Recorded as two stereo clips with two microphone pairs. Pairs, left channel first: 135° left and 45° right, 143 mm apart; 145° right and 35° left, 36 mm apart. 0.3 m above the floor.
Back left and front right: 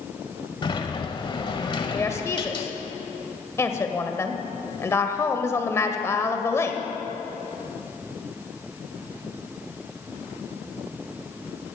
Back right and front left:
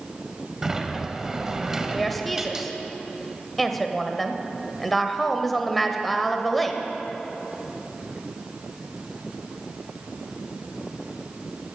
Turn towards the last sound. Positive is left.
turn(degrees=135)